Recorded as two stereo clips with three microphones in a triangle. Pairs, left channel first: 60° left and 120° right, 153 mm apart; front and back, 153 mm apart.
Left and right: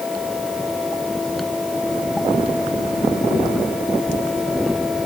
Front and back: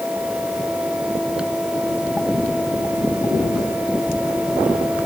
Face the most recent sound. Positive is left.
No sound to turn to.